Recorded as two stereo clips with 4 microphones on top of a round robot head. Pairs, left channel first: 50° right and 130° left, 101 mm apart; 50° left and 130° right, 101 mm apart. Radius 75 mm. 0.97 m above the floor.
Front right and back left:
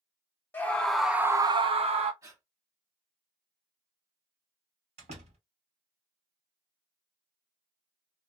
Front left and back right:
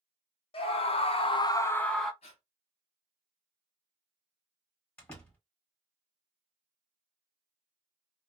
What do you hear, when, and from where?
0.5 s a scream: 25° left, 1.0 m; by 2.1 s 140° left, 0.8 m
2.2 s breathing: 75° left, 0.7 m
5.0 s a door slam: 125° left, 1.6 m